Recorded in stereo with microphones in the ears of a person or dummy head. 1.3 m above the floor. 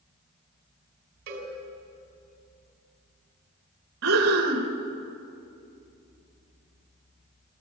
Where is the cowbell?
55° right (ahead or behind), 3.5 m.